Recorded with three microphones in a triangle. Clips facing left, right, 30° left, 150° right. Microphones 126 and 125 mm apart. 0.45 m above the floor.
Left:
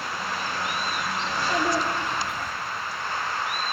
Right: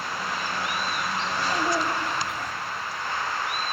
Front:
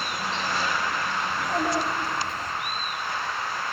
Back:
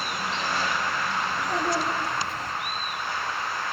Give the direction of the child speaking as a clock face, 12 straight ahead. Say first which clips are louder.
Left 2 dB, front 2 dB; 8 o'clock.